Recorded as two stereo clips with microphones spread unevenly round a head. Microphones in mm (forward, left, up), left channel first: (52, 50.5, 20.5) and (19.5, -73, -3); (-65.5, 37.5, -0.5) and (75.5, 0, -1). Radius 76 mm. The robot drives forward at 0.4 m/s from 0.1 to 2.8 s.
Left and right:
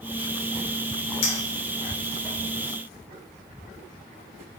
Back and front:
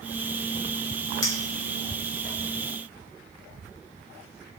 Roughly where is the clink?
Left.